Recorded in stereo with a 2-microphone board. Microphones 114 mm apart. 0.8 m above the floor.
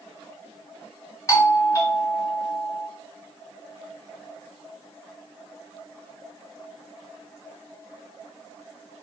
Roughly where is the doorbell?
Left.